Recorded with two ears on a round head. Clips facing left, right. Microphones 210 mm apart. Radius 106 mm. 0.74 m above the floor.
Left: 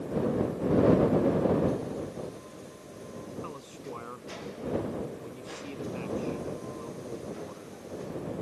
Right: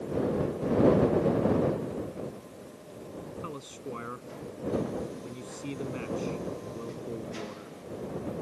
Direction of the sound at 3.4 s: 25° right (ahead or behind).